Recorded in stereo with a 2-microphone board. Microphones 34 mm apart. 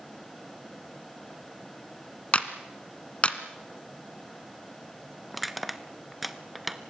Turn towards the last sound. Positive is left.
turn(degrees=-5)  # may be behind; listen again after turning